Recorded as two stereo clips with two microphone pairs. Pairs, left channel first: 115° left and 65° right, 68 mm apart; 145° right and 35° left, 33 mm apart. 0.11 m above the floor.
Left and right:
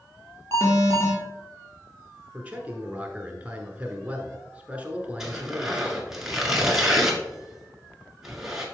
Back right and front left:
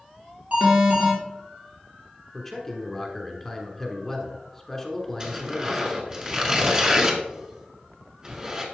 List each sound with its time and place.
0.5 s an alarm: 75° left, 3.5 m
2.3 s a man speaking: 80° right, 1.1 m
5.2 s tearing paper: 10° left, 1.5 m